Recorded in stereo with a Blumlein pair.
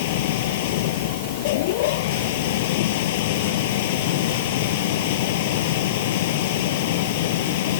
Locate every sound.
0.0 s a machine running: 50° left